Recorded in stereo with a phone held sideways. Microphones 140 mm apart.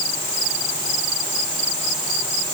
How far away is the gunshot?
I don't hear a gunshot.